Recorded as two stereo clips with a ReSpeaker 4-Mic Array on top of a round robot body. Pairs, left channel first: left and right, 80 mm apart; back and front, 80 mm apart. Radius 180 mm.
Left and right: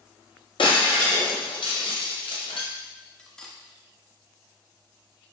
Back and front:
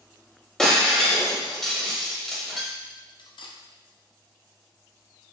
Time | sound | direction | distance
0.6 | breaking glass | 95° left | 1.1 m
3.2 | cutlery clinking | 170° left | 0.7 m